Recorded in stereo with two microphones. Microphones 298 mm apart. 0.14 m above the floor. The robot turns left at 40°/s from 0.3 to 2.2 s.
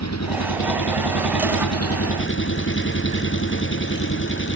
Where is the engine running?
120° left; by 4.6 s 40° left.